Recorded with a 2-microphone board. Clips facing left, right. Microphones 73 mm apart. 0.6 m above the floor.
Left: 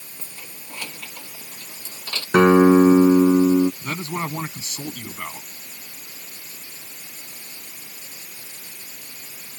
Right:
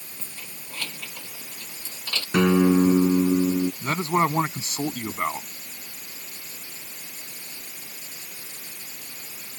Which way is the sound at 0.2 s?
15° left (ahead or behind).